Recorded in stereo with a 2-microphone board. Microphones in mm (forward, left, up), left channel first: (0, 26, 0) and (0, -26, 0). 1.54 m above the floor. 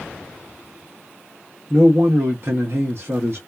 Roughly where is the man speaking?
Right.